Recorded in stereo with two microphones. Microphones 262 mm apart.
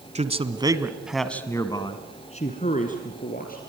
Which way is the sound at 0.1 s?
25° right (ahead or behind).